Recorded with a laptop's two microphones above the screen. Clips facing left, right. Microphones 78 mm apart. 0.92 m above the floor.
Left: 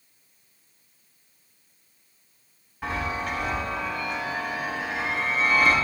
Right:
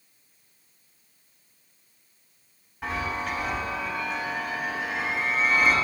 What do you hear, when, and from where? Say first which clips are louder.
2.8 s a chime: left 1 dB; centre (ahead or behind), 4 m